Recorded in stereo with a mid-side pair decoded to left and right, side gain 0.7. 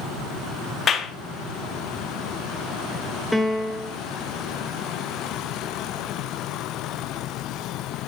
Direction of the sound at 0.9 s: 30° left.